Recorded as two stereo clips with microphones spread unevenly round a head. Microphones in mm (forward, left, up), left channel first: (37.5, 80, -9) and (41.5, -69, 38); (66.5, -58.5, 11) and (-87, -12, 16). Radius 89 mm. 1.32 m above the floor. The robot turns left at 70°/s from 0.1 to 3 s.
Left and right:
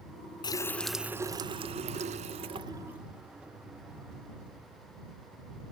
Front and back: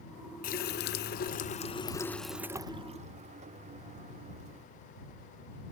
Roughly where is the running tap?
Ahead.